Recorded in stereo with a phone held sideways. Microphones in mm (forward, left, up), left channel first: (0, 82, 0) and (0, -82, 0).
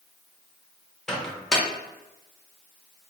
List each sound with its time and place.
1.1 s a microwave: 5° left (ahead or behind), 0.7 m